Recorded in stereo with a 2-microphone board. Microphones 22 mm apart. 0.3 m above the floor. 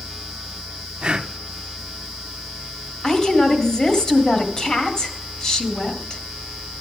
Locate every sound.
1.0 s breathing: 35° right (ahead or behind), 0.6 m
3.0 s a woman speaking: 35° left (ahead or behind), 1.9 m